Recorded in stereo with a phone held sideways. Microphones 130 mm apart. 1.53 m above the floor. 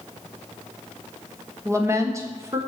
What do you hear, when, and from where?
1.6 s a woman speaking: 20° right (ahead or behind), 1.2 m